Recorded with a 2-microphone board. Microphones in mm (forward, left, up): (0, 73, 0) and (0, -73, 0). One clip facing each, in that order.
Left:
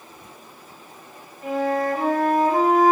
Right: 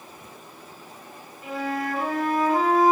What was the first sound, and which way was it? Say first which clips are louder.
A flute: left 6 dB; 45° left (ahead or behind).